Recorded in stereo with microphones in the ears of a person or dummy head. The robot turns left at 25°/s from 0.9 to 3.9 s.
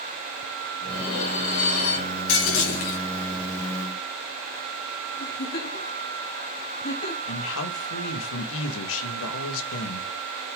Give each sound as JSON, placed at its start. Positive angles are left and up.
{"t": 0.8, "sound": "dishes clattering", "azimuth_deg": 120, "distance_m": 4.5}
{"t": 2.3, "sound": "breaking glass", "side_deg": 75, "distance_m": 5.0}
{"t": 5.2, "sound": "a giggle", "side_deg": 55, "distance_m": 4.0}
{"t": 7.3, "sound": "a man speaking", "side_deg": 75, "distance_m": 2.0}